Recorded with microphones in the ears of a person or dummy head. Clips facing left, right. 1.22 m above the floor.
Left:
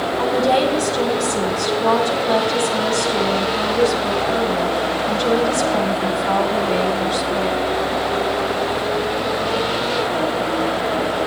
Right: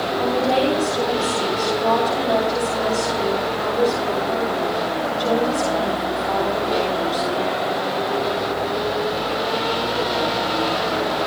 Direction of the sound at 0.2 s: 65° left (ahead or behind).